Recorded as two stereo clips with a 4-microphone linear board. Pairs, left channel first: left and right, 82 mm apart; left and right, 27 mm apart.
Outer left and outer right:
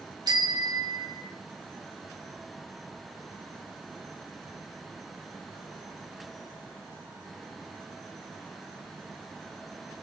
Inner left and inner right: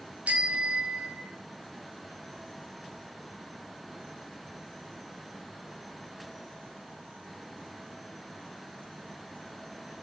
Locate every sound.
0.3 s a bicycle bell: 60° right (ahead or behind), 2 m; by 1.3 s 70° right (ahead or behind), 3.5 m